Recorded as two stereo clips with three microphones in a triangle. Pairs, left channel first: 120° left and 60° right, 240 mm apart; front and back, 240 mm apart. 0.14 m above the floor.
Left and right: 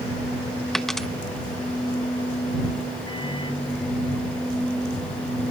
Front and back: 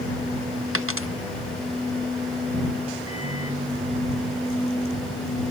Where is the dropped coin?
150° right.